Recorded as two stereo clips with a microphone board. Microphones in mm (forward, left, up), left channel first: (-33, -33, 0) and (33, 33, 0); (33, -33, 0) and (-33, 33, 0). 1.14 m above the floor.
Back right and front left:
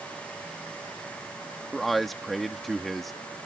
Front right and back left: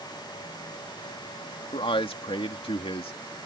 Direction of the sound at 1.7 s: 45° right.